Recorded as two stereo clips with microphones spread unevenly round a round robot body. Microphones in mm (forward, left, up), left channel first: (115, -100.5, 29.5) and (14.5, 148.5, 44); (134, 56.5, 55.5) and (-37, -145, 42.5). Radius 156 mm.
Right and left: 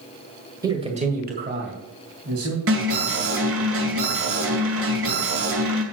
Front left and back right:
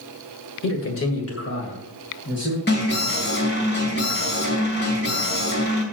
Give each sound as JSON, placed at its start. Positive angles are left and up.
{"t": 0.6, "sound": "a man speaking", "azimuth_deg": 35, "distance_m": 2.0}
{"t": 2.7, "sound": "an alarm", "azimuth_deg": 90, "distance_m": 2.5}